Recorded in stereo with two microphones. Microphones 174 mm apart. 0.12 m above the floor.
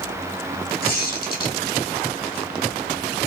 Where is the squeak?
65° left (ahead or behind), 1.2 m.